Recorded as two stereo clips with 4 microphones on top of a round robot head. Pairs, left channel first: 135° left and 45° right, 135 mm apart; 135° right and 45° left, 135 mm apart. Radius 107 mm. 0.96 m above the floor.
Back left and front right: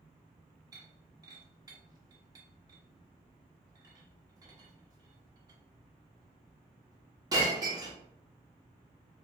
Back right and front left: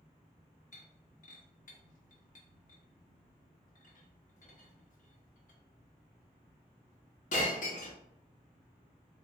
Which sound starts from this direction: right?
Breaking glass, at 0.7 s.